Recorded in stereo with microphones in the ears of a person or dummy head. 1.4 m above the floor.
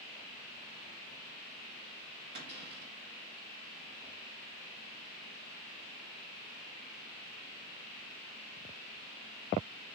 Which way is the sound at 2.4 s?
30° right (ahead or behind).